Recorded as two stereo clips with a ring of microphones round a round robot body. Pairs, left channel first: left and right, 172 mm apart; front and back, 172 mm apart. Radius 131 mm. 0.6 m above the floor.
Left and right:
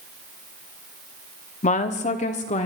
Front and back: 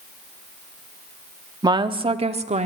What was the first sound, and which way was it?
A woman speaking, 120° left.